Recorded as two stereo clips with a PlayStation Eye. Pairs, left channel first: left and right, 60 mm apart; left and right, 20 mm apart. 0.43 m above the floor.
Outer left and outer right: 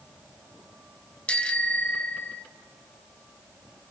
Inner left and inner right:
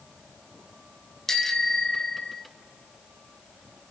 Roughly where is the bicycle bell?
Centre.